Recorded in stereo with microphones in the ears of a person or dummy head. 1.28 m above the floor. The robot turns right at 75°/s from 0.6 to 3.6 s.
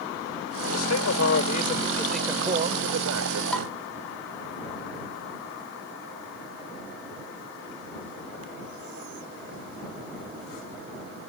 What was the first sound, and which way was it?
A man speaking, 70° left.